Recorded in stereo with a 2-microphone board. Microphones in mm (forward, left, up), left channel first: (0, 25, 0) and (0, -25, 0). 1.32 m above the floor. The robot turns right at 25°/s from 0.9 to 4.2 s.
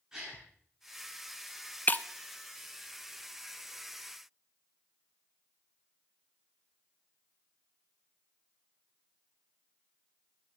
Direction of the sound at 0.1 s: 10° right (ahead or behind).